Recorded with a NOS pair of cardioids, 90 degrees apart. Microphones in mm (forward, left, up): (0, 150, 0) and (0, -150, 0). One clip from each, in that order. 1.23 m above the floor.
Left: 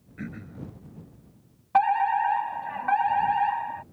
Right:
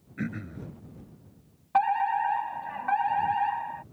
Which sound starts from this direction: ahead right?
Throat clearing, at 0.2 s.